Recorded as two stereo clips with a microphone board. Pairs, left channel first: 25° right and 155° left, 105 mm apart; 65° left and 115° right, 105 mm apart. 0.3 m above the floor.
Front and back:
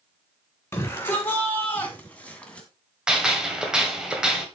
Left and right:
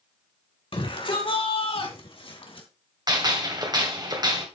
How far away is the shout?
About 3.5 m.